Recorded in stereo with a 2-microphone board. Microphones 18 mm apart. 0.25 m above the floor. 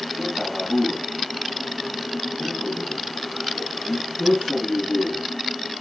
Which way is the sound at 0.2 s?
20° right (ahead or behind).